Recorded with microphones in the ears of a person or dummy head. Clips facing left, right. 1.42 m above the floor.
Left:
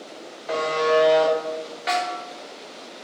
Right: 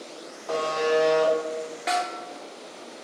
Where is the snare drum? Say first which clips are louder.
Left 2 dB; centre (ahead or behind), 1.5 m.